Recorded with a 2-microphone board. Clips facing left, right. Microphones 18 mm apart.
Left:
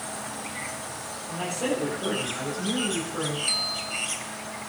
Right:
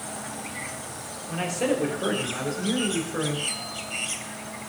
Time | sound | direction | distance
1.3 | a man speaking | 80° right | 7.5 m
3.5 | a bell | 45° left (ahead or behind) | 2 m